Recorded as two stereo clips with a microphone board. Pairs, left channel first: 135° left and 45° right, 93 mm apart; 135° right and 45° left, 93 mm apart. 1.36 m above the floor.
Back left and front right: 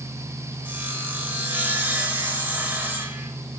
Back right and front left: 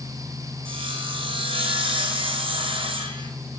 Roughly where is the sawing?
Ahead left.